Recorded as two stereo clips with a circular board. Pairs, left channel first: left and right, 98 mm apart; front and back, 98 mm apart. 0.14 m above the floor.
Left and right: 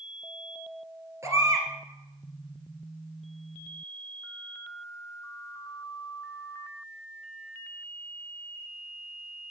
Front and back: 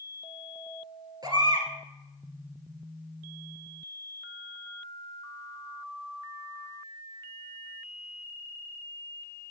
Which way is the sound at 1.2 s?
145° right.